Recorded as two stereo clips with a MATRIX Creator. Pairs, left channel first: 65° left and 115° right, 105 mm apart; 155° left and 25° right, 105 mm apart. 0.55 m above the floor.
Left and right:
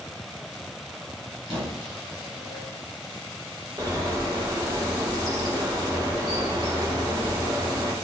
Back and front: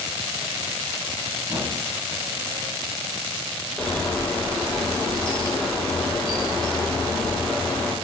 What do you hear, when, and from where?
1.5 s a squeak: 80° right, 1.5 m
3.8 s a bird: 130° right, 0.8 m